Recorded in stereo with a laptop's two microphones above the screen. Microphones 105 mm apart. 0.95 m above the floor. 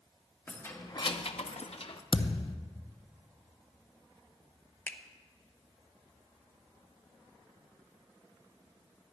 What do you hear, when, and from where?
0.5 s keys jangling: 20° left (ahead or behind), 1.1 m; by 2.0 s 55° left (ahead or behind), 1.0 m
2.1 s a thud: 50° left (ahead or behind), 0.5 m
4.9 s a finger snap: 20° left (ahead or behind), 0.7 m